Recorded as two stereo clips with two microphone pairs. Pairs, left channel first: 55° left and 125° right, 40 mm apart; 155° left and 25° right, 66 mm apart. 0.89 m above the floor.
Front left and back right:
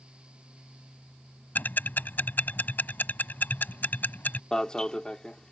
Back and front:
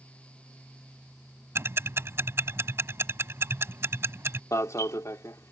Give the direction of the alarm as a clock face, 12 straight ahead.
8 o'clock.